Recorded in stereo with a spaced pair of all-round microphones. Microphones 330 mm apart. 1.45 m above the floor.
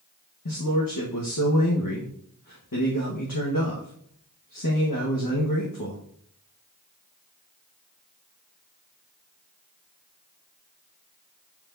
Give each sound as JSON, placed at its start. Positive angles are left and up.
{"t": 0.5, "sound": "a man speaking", "side_deg": 80, "distance_m": 1.4}